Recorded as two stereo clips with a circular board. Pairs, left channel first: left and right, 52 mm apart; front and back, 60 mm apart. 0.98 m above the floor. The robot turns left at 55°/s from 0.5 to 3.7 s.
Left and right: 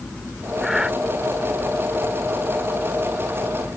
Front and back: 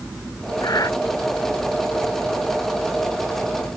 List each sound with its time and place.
0.6 s breathing: straight ahead; by 0.9 s 20° right